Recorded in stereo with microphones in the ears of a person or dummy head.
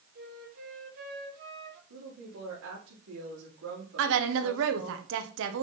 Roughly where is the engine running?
No engine running in this recording.